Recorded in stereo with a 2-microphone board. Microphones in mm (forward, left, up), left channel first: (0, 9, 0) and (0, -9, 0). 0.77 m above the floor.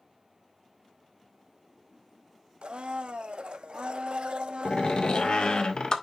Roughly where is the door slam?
Left.